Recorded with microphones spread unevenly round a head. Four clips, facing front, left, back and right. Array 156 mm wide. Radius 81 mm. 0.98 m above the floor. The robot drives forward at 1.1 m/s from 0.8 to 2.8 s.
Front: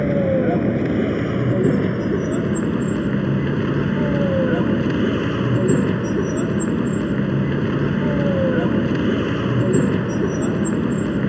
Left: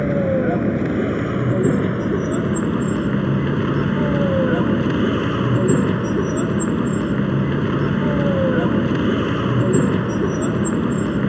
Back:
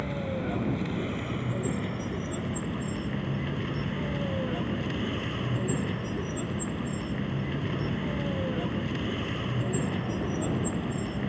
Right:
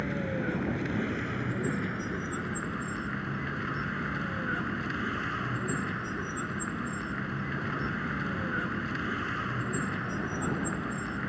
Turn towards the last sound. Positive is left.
turn(degrees=50)